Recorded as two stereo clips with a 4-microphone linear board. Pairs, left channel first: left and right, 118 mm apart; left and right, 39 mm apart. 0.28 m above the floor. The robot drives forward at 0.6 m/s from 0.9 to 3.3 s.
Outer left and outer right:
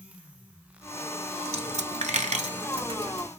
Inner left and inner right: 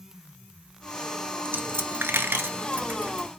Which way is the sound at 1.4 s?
65° right (ahead or behind).